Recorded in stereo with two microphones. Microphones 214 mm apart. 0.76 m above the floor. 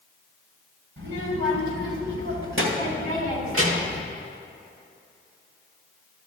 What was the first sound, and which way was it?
A child speaking, 60° right (ahead or behind).